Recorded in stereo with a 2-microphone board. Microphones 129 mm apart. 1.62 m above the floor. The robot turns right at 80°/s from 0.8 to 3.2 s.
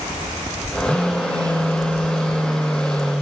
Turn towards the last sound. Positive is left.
turn(degrees=-10)